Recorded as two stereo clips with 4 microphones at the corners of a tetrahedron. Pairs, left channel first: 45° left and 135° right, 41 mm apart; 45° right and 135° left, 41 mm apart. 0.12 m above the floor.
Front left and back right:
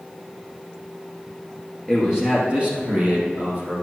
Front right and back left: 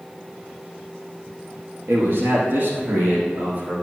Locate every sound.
1.9 s a man speaking: 145° left, 2.5 m; by 3.8 s 175° right, 4 m